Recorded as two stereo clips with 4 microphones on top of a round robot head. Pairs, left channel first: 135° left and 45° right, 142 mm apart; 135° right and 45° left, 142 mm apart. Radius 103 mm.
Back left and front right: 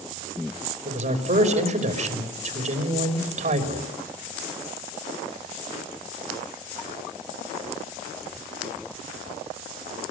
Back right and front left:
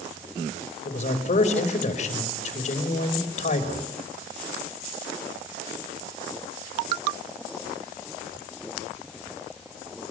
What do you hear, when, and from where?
0.8 s a man speaking: 85° right, 5.5 m